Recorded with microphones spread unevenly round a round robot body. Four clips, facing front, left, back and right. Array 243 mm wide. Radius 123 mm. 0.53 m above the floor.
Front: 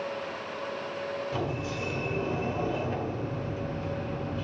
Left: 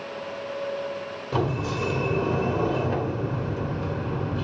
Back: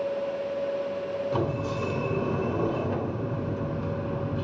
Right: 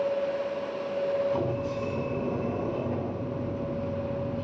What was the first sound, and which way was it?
A sliding door, 100° left.